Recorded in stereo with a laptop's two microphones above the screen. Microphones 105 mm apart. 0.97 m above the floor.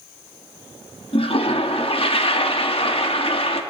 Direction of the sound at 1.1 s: 60° left (ahead or behind).